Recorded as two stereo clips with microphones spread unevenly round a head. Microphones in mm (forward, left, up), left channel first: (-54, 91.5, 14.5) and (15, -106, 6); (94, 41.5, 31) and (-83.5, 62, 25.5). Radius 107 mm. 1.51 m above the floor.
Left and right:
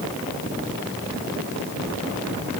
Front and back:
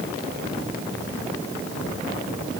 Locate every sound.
Only background noise.